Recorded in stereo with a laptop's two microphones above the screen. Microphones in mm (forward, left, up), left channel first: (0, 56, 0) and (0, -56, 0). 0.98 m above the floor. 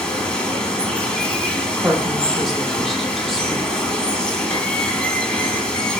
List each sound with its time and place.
0.0 s running water: 10° left (ahead or behind), 0.9 m
1.8 s a woman speaking: centre (ahead or behind), 1.0 m